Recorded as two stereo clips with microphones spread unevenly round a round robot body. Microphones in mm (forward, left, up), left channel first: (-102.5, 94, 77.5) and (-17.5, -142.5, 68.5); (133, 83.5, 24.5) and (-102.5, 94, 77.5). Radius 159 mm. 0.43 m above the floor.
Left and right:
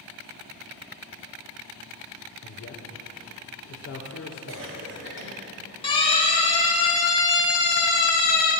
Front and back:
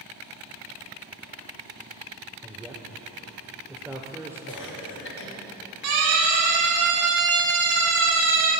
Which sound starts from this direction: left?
A man speaking, at 2.4 s.